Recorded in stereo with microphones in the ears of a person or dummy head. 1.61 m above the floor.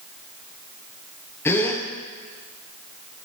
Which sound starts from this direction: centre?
A gasp, at 1.4 s.